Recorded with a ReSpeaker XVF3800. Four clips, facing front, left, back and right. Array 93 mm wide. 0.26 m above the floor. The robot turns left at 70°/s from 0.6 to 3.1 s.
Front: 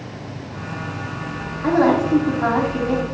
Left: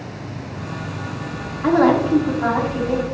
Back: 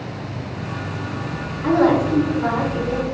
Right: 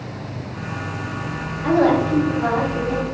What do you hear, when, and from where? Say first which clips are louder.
1.6 s a woman speaking: left 1 dB, even; 75° left, 1.5 m; by 3.0 s 25° right, 1.5 m